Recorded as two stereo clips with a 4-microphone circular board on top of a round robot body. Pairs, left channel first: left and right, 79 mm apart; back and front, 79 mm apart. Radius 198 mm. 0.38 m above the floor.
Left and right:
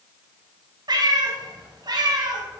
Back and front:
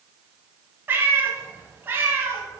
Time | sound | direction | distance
0.9 | a cat meowing | 65° right | 1.1 m